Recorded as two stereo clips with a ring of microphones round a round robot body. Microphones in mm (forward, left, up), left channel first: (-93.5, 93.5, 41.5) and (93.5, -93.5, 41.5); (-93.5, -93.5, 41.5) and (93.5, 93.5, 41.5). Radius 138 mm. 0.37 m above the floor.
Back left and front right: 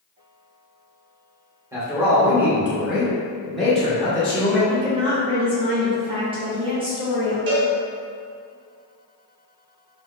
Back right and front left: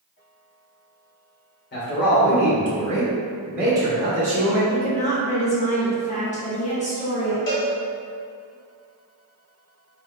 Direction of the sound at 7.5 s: 90° right.